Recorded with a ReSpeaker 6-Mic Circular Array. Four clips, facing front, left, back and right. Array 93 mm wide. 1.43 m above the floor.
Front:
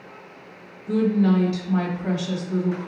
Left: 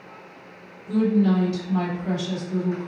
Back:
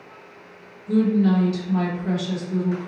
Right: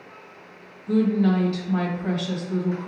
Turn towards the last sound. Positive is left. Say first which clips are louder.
# even, back 1 dB
turn(degrees=-50)